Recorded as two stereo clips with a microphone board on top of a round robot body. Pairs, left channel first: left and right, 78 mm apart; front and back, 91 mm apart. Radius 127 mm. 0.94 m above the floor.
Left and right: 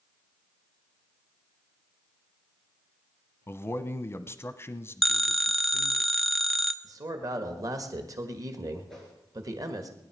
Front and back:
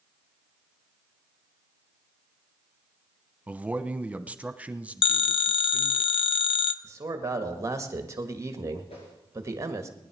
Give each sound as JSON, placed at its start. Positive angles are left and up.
{"t": 3.5, "sound": "a man speaking", "azimuth_deg": 115, "distance_m": 1.0}
{"t": 5.0, "sound": "a phone ringing", "azimuth_deg": 0, "distance_m": 0.6}
{"t": 6.8, "sound": "a man speaking", "azimuth_deg": -125, "distance_m": 1.7}
{"t": 8.9, "sound": "a whoosh", "azimuth_deg": 5, "distance_m": 4.5}